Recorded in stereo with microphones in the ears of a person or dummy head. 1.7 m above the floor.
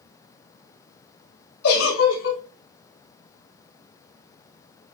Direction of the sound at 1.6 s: 75° left (ahead or behind).